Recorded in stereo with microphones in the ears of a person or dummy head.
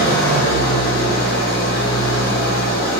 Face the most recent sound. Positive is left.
turn(degrees=45)  # may be behind; listen again after turning